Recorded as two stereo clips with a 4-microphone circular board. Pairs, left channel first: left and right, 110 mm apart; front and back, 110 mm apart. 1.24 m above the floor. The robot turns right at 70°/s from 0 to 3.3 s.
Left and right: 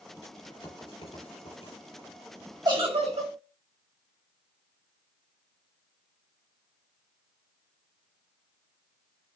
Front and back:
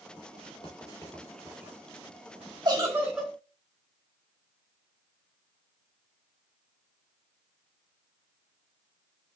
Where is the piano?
I don't hear a piano.